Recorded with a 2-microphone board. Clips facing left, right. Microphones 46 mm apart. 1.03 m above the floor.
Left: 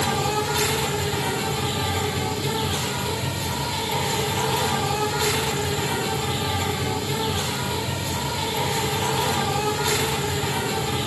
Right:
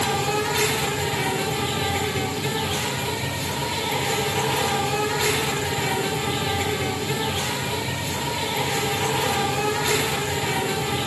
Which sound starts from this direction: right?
An insect, at 0.0 s.